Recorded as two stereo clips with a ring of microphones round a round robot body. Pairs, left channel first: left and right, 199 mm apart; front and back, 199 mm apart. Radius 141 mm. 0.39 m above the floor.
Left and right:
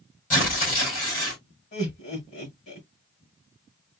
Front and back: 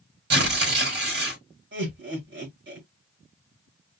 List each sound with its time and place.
0.3 s tearing paper: 150° left, 4 m
1.7 s laughter: 155° left, 3.5 m